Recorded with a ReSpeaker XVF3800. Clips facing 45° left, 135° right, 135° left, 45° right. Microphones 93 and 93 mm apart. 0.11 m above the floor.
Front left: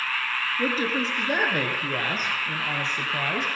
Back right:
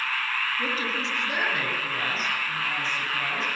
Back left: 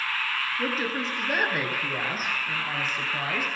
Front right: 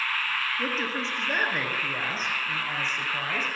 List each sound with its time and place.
0.6 s a woman speaking: 55° left, 1.7 m